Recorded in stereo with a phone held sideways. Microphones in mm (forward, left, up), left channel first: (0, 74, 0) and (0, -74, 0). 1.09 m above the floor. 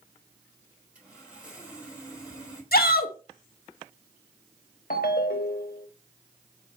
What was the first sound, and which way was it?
Sawing, 10° right (ahead or behind).